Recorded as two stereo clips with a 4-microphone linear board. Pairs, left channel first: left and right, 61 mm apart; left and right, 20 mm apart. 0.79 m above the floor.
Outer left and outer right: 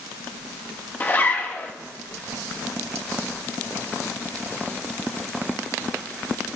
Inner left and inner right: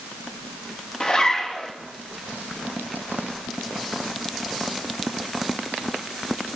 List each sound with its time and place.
1.0 s a zipper: 35° left (ahead or behind), 1.0 m